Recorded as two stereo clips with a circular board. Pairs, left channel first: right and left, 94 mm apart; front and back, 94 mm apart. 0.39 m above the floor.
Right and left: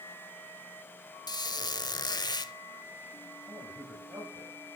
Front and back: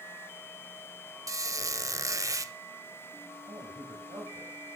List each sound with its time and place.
1.3 s a squeak: 130° right, 0.6 m
3.5 s a man speaking: 145° left, 9 m